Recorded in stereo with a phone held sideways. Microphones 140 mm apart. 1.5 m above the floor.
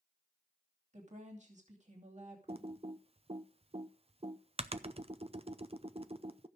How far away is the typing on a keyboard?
About 0.6 m.